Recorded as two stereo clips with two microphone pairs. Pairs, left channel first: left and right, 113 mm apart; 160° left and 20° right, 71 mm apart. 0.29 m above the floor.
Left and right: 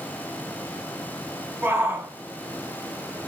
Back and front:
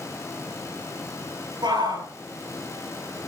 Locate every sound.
1.6 s a shout: 20° right, 5.5 m